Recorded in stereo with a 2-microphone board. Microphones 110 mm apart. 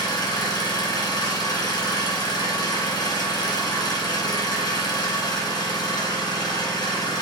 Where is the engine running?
40° left (ahead or behind), 1.4 m.